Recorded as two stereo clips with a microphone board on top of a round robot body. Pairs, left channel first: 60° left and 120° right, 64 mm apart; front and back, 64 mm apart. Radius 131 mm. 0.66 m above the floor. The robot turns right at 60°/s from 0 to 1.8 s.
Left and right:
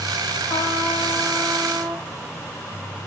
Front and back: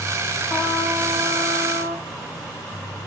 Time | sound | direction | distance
0.5 | a trumpet | 90° left | 8 m